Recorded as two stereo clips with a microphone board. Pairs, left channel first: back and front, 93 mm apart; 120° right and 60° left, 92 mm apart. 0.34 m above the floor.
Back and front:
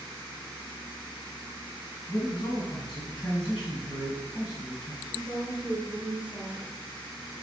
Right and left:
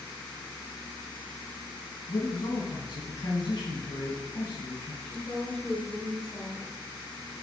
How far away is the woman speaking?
About 1.2 m.